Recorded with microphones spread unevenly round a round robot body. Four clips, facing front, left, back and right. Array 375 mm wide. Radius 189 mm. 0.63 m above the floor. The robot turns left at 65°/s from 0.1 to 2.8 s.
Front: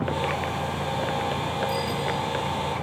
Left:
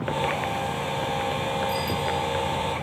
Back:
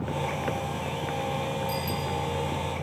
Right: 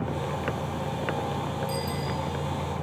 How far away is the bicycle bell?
About 5 m.